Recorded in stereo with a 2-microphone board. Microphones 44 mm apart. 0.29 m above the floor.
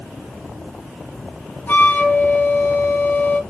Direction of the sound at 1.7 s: 50° left (ahead or behind).